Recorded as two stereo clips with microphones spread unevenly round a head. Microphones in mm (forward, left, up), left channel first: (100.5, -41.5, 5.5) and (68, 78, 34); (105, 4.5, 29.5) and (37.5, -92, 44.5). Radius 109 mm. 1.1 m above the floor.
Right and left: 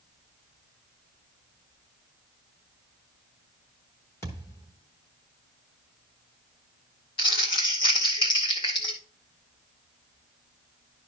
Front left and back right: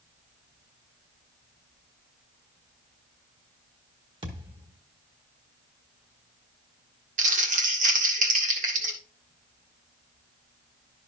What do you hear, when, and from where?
4.2 s a thud: 160° right, 1.1 m
7.2 s crumpling: 135° right, 1.6 m